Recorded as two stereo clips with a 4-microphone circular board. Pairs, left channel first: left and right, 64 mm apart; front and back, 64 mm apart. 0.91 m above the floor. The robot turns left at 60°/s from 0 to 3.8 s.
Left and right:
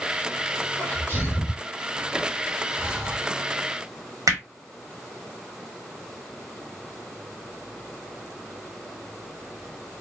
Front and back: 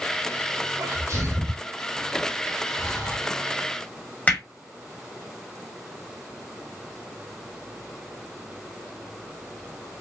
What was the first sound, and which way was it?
A sneeze, 165° left.